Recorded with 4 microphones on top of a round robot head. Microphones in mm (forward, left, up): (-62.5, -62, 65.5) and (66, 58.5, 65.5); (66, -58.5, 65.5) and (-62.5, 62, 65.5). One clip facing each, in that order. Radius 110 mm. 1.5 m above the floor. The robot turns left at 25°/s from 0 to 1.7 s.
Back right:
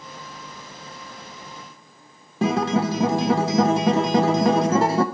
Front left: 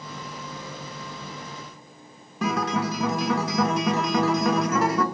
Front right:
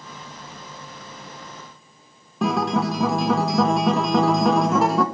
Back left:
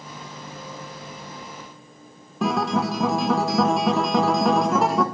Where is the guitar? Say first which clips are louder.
Back right 5 dB, front right 1 dB; 135° right, 0.8 m.